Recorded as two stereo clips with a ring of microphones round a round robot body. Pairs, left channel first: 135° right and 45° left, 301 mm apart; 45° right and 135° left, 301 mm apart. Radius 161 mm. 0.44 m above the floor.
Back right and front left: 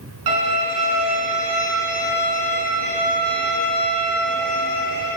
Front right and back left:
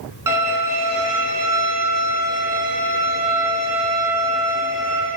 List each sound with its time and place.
0.3 s a violin: 55° left, 3 m